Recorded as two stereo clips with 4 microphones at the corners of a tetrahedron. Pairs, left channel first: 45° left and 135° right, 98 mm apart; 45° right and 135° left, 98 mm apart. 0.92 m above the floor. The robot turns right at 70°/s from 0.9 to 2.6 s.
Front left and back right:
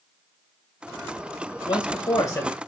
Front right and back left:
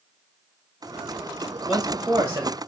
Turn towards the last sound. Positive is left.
turn(degrees=110)